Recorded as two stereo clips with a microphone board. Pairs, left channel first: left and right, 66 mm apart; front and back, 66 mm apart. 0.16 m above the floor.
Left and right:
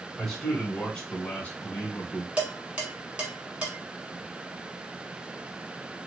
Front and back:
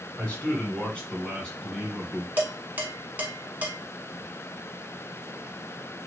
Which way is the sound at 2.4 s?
150° right.